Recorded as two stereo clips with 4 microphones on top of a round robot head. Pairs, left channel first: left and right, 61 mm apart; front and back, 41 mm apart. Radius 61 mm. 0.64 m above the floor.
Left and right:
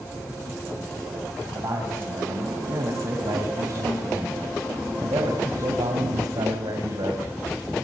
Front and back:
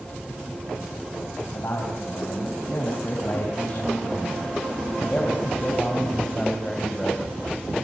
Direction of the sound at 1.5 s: 45° right.